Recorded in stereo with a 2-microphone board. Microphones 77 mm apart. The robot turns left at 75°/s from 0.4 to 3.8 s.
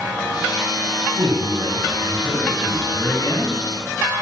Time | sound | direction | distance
1.1 | a man speaking | 70° right | 4.5 m